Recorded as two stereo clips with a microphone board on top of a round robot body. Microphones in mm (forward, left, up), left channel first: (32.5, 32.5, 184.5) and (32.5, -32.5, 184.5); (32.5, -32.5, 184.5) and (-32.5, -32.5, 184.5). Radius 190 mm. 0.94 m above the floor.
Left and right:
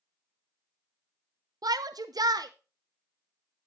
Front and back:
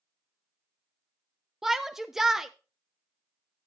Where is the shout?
95° right, 0.7 m.